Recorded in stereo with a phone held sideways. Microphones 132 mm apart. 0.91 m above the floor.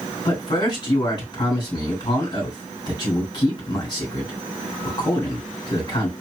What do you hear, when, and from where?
0.2 s a man speaking: 35° left (ahead or behind), 3.5 m